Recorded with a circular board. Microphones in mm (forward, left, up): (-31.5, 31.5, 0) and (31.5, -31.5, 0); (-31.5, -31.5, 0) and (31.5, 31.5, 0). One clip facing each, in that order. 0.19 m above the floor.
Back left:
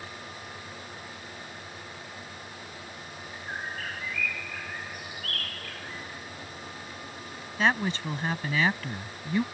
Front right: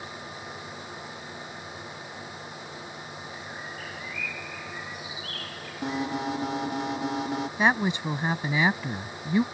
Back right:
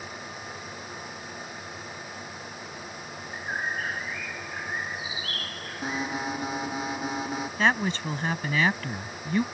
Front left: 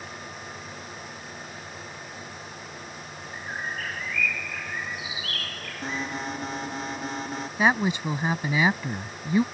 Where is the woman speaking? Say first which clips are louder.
Front right 1 dB, front left 3 dB; 5° right.